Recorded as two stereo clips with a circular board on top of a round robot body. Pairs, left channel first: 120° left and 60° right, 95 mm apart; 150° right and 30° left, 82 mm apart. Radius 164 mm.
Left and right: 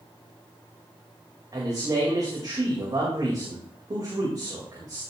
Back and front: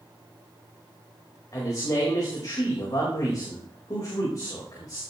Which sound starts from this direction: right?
A man speaking, at 1.5 s.